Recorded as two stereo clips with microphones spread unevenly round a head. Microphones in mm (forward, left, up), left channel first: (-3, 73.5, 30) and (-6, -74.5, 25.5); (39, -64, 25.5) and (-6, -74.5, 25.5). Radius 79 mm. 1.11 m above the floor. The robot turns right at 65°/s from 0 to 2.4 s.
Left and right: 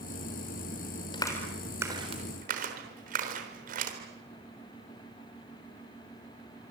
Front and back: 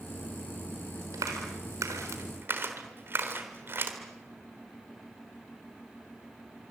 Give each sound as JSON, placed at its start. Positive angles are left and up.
{"t": 1.1, "sound": "a clap", "azimuth_deg": 150, "distance_m": 4.0}